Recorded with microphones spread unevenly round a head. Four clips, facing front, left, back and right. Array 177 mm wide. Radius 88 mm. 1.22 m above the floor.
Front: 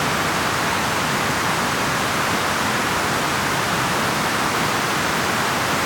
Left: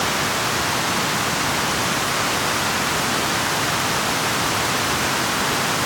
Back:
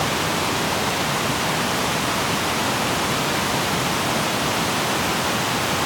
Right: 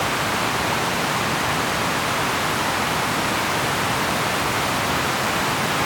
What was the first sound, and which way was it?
Only background noise.